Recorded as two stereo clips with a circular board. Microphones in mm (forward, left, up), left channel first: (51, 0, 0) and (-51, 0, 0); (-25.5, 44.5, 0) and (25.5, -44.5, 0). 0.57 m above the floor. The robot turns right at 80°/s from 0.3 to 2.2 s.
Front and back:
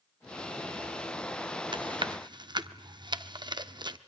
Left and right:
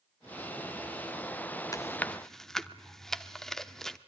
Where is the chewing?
165° left, 0.7 m; by 4.0 s 155° right, 0.7 m.